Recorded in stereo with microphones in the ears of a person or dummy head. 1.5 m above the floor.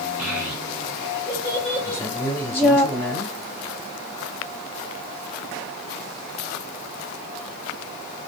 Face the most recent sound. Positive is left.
turn(degrees=15)  # may be behind; listen again after turning